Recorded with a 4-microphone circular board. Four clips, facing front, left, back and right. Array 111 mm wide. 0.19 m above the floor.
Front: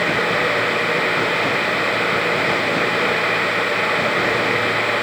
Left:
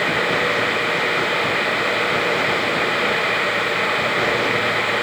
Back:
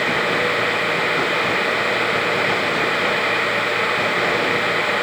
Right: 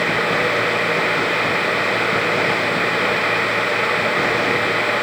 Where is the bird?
No bird in this recording.